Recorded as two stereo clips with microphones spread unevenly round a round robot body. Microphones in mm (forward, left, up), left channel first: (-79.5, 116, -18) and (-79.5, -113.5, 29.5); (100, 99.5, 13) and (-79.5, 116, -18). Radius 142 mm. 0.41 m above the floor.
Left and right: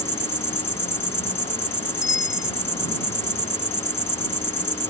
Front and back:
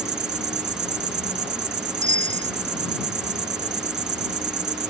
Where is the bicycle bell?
125° left.